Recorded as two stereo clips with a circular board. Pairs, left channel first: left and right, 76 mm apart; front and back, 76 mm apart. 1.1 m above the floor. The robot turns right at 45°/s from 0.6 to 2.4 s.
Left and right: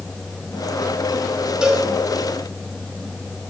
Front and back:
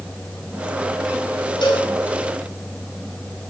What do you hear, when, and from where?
1.6 s a cowbell: 10° right, 4.5 m; by 1.9 s 5° left, 4.5 m